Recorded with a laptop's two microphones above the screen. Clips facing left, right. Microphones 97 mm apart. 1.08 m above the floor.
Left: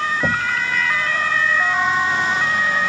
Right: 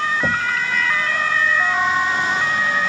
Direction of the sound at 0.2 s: 5° left (ahead or behind).